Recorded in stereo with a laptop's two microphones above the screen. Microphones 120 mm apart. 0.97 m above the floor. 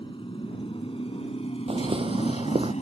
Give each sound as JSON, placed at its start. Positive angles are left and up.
{"t": 0.0, "sound": "a motorcycle", "side_deg": 45}
{"t": 1.7, "sound": "footsteps", "side_deg": -55}